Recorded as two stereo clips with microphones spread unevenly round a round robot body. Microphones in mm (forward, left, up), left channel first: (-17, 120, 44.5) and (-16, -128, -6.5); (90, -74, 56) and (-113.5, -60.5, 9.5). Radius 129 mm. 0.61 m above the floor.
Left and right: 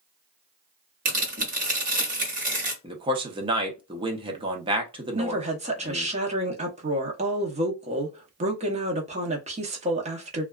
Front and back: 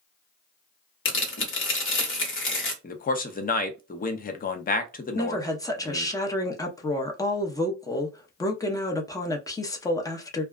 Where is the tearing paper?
35° right, 1.1 m.